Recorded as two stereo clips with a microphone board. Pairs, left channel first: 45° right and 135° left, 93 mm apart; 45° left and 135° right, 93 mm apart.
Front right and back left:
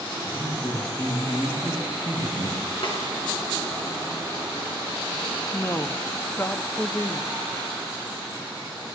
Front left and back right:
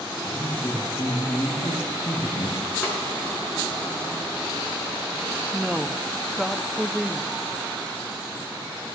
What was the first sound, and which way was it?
A man speaking, 10° right.